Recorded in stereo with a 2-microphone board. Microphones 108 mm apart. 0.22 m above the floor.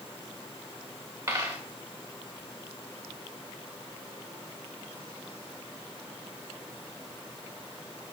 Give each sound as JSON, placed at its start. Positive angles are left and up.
{"t": 1.3, "sound": "a dropped coin", "side_deg": -25, "distance_m": 3.5}